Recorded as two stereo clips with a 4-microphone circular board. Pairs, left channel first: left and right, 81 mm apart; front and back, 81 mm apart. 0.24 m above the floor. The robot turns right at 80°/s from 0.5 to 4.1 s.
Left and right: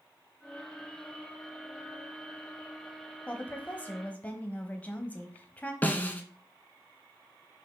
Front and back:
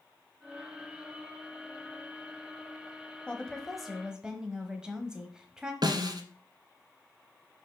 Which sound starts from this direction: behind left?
A snare drum, at 5.8 s.